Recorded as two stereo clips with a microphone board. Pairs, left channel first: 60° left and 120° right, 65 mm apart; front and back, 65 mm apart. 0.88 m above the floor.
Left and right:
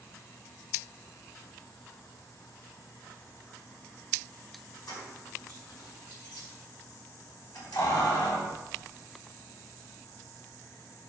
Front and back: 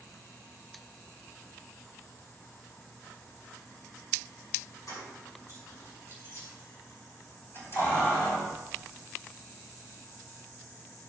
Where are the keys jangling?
35° left, 6 m; by 8.6 s 60° left, 3.5 m.